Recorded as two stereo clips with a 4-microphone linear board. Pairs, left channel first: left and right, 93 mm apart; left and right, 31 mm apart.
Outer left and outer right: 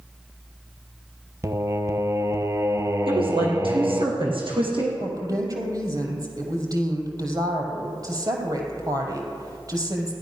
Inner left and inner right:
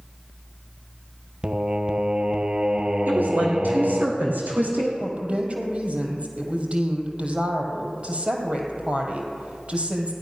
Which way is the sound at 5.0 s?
40° right (ahead or behind).